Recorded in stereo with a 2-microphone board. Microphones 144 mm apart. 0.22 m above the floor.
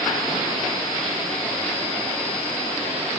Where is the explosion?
No explosion in this recording.